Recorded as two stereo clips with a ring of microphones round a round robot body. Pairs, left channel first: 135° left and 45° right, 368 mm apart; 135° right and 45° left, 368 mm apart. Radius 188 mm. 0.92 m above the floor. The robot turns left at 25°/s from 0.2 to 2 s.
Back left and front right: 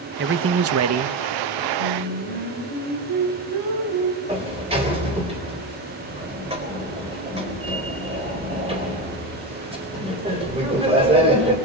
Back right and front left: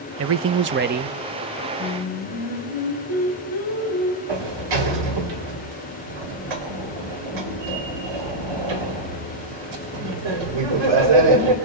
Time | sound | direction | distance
0.2 | a man speaking | 5° left | 0.8 m
1.8 | singing | 60° right | 3 m
4.3 | a sliding door | 30° left | 3.5 m